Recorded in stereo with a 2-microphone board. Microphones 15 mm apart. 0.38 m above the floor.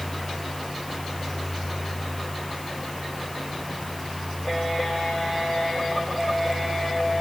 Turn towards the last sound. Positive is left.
No sound to turn to.